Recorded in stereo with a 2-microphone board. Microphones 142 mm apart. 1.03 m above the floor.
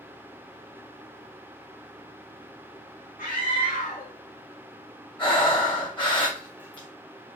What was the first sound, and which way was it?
A scream, 80° left.